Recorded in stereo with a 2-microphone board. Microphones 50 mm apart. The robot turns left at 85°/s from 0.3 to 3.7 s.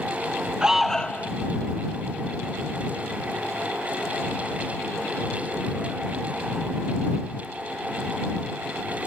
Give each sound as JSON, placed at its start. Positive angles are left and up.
{"t": 0.6, "sound": "an alarm", "azimuth_deg": -165}